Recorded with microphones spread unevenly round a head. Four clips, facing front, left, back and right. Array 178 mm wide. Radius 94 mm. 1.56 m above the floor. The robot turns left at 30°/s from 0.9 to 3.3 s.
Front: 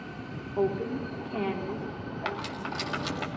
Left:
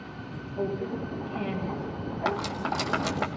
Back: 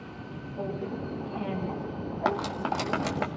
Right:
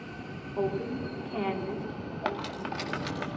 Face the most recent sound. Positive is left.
turn(degrees=150)